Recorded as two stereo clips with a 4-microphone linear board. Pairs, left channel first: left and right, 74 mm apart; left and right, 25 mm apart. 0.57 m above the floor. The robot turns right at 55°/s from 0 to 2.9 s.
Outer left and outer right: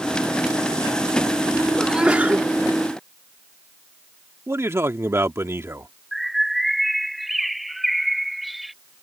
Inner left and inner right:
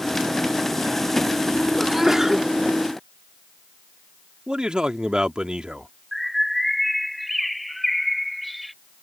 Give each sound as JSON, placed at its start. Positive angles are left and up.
{"t": 1.8, "sound": "a sneeze", "azimuth_deg": -175}
{"t": 4.5, "sound": "a man speaking", "side_deg": -35}
{"t": 6.1, "sound": "a bird", "side_deg": 0}